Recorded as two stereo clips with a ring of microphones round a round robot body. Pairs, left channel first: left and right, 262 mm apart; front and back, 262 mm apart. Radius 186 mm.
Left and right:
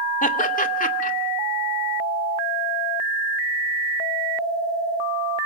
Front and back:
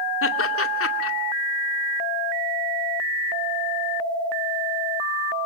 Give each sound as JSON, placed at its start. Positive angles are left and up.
{"t": 0.2, "sound": "laughter", "azimuth_deg": 30, "distance_m": 2.5}